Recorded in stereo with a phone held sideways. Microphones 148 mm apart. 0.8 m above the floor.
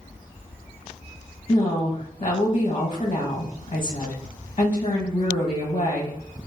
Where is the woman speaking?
35° left (ahead or behind), 0.9 m.